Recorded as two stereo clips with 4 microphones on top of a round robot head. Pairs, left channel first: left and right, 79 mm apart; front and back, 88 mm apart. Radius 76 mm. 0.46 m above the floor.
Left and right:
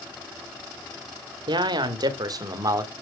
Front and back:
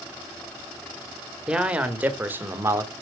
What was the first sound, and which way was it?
A man speaking, 100° right.